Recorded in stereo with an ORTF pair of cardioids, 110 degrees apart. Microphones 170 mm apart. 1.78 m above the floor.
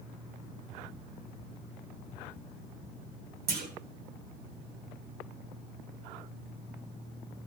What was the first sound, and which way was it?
A clunk, 65° right.